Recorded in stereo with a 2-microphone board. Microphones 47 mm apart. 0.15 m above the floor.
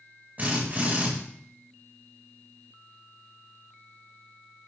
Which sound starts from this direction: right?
A drill, at 0.4 s.